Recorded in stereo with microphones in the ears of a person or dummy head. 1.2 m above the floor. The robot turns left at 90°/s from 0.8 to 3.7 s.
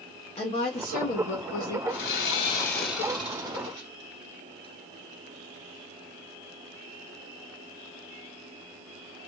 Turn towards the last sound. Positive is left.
turn(degrees=-75)